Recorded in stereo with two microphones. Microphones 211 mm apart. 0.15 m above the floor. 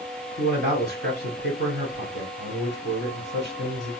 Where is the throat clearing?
No throat clearing in this recording.